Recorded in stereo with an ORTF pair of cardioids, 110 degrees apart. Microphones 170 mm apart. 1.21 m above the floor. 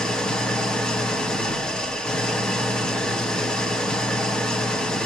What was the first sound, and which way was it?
An engine running, 5° left.